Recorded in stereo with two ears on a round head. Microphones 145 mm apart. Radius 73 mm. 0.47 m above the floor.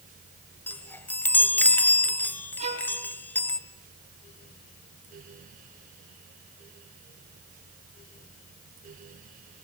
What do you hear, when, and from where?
0.7 s a chime: 10° left (ahead or behind), 1.3 m
2.6 s a violin: 45° right (ahead or behind), 5.5 m